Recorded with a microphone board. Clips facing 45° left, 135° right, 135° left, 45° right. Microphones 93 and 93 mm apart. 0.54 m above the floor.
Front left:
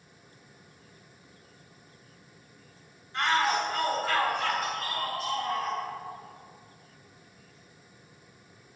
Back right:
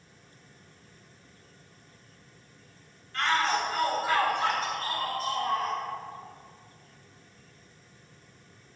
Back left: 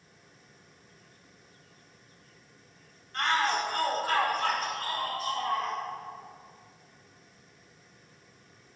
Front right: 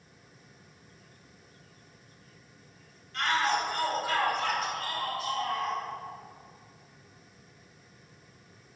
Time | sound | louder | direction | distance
3.1 | a shout | front left 1 dB, even | 110° left | 1.5 m